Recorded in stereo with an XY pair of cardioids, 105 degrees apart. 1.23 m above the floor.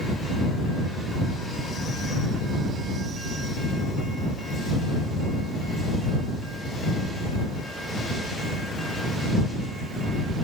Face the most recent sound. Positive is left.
No sound to turn to.